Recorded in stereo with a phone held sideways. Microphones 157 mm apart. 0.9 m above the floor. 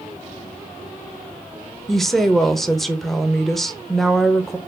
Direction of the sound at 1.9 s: Centre (ahead or behind).